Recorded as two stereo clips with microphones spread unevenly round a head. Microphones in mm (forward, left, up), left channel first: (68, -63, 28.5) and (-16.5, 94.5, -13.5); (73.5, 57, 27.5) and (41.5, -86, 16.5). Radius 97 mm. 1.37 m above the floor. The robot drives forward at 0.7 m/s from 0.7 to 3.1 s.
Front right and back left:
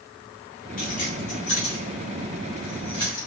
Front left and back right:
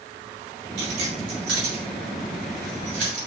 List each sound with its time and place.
0.8 s keys jangling: 110° right, 3 m; by 3.3 s 130° right, 4 m